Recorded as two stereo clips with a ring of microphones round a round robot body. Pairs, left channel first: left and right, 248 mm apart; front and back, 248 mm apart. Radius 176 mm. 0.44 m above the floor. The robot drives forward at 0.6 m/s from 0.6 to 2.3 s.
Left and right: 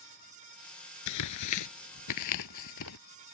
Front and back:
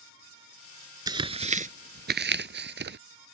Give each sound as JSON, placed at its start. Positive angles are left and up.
{"t": 1.1, "sound": "tearing paper", "azimuth_deg": 105}